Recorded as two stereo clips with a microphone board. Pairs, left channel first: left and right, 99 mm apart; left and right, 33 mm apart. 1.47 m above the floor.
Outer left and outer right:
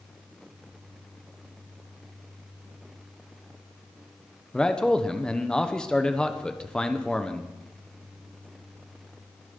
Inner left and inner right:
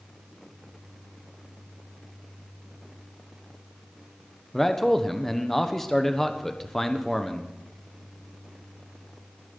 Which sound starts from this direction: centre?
A man speaking, at 4.5 s.